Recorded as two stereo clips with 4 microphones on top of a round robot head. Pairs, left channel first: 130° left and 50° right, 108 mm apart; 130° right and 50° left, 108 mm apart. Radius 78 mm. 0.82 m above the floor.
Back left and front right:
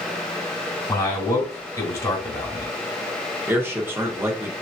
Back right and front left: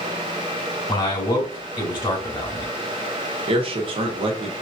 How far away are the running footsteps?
No running footsteps in this recording.